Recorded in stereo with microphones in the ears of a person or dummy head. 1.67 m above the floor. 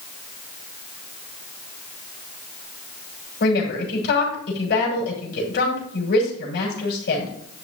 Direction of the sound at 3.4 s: 60° left (ahead or behind).